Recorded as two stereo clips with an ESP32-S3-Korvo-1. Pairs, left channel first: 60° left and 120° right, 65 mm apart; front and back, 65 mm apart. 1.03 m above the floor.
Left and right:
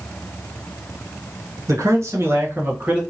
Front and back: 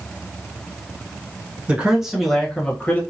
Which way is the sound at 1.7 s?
110° right.